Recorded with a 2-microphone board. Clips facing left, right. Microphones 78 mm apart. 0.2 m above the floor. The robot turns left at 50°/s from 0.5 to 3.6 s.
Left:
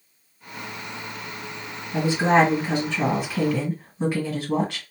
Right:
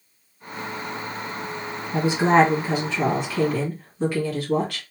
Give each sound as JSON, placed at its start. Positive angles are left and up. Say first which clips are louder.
{"t": 1.9, "sound": "a woman speaking", "louder": "right 1 dB", "azimuth_deg": -130, "distance_m": 1.7}